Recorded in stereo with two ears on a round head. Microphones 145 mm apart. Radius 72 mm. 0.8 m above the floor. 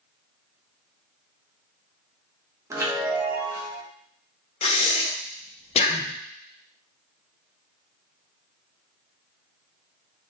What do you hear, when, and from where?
2.7 s a chime: 20° right (ahead or behind), 0.7 m
4.6 s breathing: 40° left (ahead or behind), 0.6 m